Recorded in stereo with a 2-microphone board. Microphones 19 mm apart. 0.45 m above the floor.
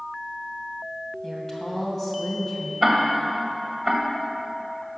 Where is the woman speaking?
20° left (ahead or behind), 2.5 m.